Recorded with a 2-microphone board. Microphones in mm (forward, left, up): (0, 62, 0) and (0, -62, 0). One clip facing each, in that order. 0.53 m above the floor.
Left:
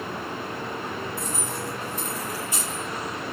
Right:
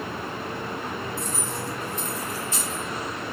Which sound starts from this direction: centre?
Keys jangling, at 1.2 s.